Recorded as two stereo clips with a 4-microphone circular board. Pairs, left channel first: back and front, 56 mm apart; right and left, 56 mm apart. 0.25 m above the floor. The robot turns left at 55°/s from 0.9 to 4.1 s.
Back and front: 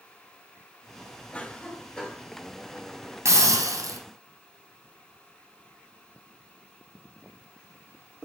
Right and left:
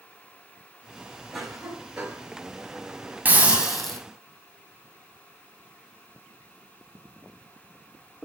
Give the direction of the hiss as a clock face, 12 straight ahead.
11 o'clock.